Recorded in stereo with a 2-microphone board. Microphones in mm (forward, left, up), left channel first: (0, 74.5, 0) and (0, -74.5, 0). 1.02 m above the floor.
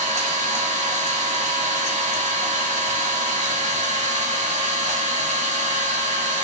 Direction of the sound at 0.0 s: 50° right (ahead or behind).